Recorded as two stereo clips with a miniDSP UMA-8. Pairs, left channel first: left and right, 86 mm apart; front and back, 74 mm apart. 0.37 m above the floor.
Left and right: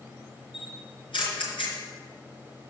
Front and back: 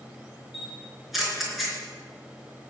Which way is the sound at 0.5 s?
95° left.